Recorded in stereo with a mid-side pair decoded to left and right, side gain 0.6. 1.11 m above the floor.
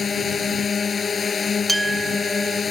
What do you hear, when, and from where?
0.0 s a drone: 30° left
1.7 s a clink: 10° right